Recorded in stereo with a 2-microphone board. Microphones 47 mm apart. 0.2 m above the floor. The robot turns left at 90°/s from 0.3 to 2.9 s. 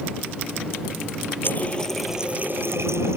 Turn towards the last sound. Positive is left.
turn(degrees=-80)